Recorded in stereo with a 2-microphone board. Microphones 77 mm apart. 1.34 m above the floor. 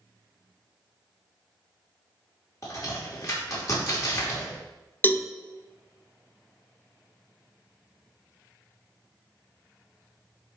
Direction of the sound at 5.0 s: 25° left (ahead or behind).